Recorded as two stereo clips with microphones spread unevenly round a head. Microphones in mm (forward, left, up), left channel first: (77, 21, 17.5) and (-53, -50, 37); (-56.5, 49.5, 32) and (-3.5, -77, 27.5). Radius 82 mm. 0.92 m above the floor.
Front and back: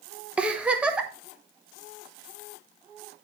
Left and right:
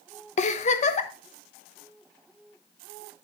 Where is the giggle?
120° left, 1.2 m.